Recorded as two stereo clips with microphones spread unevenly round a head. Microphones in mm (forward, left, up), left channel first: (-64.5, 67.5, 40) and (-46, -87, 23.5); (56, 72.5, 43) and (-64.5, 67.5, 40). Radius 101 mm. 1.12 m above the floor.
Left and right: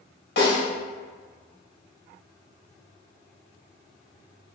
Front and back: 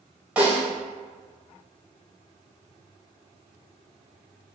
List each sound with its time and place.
0.4 s a snare drum: 100° left, 2.0 m